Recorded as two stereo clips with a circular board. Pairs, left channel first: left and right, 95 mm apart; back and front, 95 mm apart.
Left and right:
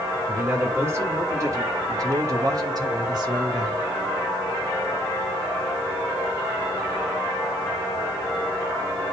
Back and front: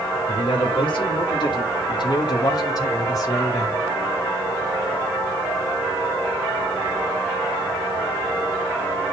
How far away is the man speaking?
About 3 m.